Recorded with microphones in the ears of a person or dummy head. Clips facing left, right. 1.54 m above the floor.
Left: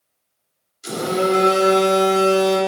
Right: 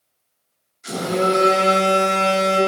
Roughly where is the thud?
I don't hear a thud.